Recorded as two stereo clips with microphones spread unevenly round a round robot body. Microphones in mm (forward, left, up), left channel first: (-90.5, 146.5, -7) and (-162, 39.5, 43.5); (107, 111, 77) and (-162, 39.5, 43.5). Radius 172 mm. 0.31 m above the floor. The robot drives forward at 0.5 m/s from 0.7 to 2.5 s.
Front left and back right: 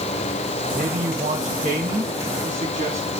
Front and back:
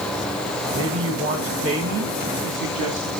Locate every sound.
0.7 s a man speaking: 145° right, 1.8 m; by 3.1 s 160° right, 2.5 m